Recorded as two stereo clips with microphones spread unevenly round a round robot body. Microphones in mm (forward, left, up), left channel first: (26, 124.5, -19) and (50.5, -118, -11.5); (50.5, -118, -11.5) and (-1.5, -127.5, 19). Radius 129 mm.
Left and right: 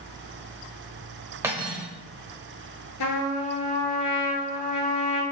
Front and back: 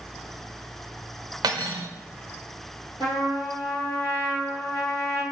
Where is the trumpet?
85° left, 1.7 m.